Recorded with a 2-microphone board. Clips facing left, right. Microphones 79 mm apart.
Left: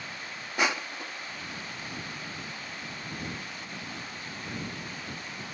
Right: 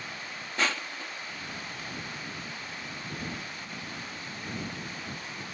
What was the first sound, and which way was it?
Crushing, 15° left (ahead or behind).